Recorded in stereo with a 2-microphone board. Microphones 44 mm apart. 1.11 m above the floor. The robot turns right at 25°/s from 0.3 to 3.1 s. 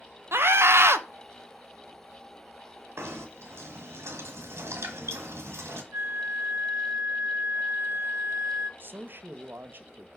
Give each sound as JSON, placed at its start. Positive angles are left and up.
{"t": 0.3, "sound": "a scream", "side_deg": -60, "distance_m": 0.7}
{"t": 3.0, "sound": "knocking", "side_deg": -75, "distance_m": 1.6}
{"t": 5.9, "sound": "a flute", "side_deg": -65, "distance_m": 0.5}
{"t": 8.8, "sound": "a man speaking", "side_deg": -50, "distance_m": 0.7}